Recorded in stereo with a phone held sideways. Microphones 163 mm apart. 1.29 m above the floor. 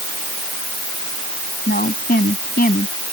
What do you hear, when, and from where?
1.7 s a woman speaking: 70° left (ahead or behind)